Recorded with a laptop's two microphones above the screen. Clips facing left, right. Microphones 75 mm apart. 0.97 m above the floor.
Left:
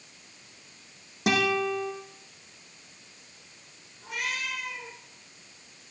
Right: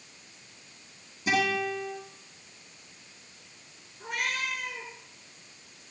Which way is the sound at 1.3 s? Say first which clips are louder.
Left 2 dB; 75° left (ahead or behind).